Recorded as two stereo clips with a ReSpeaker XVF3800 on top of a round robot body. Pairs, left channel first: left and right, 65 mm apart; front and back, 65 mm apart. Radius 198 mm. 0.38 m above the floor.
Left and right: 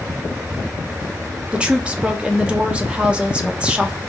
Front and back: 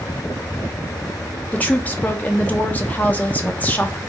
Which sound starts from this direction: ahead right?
A woman speaking, at 1.5 s.